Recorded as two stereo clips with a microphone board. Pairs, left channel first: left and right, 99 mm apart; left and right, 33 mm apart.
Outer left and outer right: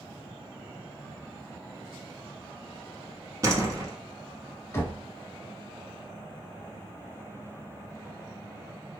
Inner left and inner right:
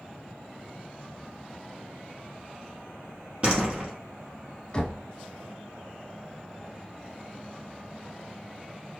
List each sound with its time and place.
3.4 s a door slam: 35° right (ahead or behind), 0.9 m
4.7 s knocking: 25° left (ahead or behind), 0.7 m